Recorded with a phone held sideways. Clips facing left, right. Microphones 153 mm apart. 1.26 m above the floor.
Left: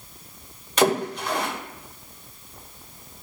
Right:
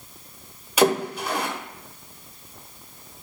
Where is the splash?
10° right (ahead or behind), 0.8 m.